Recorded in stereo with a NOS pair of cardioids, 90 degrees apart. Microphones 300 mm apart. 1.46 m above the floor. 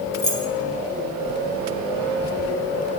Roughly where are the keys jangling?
Ahead left.